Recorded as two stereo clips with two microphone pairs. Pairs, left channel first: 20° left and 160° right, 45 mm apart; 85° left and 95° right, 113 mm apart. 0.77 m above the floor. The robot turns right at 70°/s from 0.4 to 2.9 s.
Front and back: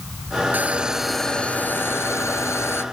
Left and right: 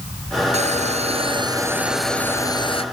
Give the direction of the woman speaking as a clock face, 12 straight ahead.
I don't hear a woman speaking.